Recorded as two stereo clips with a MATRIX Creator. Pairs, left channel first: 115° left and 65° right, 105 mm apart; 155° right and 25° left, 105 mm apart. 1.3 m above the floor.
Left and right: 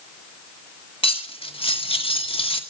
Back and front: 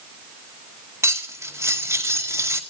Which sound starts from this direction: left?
Cutlery clinking, at 1.0 s.